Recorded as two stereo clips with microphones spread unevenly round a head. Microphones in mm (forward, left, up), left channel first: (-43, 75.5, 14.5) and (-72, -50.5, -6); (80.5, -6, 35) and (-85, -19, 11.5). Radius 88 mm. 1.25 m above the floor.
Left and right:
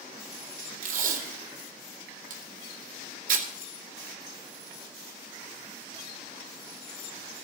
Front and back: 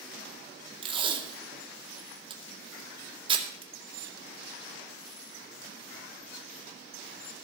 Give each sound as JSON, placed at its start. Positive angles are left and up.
{"t": 0.8, "sound": "tape being pulled", "azimuth_deg": -115, "distance_m": 2.0}